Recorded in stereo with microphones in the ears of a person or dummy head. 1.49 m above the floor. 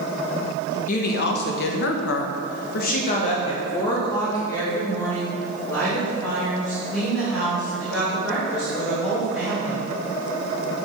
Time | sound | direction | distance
0.9 | a woman speaking | 50° left (ahead or behind) | 1.3 m